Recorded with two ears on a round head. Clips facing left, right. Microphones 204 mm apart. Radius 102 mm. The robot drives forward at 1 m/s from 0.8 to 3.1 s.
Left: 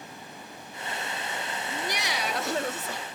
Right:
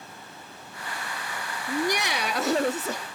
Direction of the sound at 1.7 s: 30° right (ahead or behind).